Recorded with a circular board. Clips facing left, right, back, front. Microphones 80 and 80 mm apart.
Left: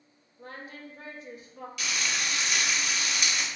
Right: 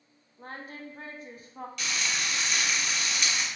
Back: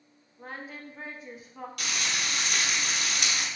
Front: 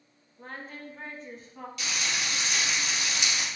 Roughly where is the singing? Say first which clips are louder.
Right 1 dB, even; right.